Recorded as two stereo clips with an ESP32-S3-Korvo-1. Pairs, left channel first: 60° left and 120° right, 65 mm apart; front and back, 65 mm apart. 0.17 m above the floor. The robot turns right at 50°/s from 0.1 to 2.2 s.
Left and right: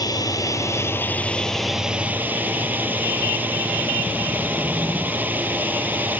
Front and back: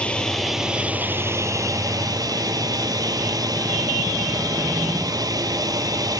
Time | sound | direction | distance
0.0 | a drone | 70° left | ?